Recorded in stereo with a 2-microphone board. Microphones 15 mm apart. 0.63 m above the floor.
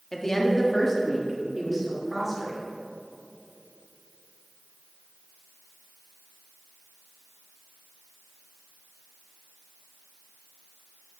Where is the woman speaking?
35° left (ahead or behind), 1.4 m; by 2.6 s 5° right (ahead or behind), 2.5 m.